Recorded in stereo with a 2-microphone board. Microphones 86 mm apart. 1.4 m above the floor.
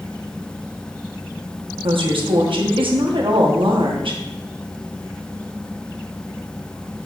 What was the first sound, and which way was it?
A woman speaking, 85° right.